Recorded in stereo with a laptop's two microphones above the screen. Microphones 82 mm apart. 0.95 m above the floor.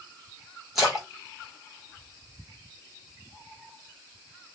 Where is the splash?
5° right (ahead or behind), 1.0 m.